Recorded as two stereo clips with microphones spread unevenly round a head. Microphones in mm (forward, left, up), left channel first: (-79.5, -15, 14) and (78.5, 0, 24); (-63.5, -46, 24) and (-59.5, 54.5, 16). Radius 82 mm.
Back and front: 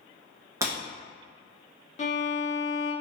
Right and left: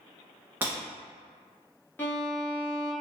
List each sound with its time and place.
0.6 s breaking glass: 30° left, 0.8 m
2.0 s a violin: 145° right, 0.8 m